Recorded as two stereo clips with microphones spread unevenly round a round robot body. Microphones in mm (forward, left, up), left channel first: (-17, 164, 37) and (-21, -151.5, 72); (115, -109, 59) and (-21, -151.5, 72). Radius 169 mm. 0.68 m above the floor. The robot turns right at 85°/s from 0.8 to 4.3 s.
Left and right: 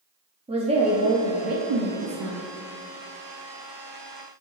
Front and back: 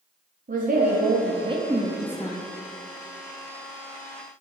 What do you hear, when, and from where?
0.5 s a woman speaking: 165° right, 1.0 m; by 2.4 s 30° right, 1.0 m